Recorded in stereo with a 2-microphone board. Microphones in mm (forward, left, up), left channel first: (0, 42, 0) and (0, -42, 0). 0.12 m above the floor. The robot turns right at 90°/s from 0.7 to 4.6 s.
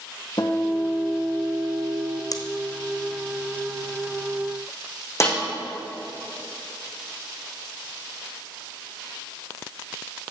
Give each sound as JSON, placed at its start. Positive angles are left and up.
{"t": 0.4, "sound": "a guitar", "azimuth_deg": 115, "distance_m": 1.5}
{"t": 2.3, "sound": "scissors", "side_deg": 50, "distance_m": 1.0}
{"t": 5.2, "sound": "a snare drum", "side_deg": 35, "distance_m": 3.5}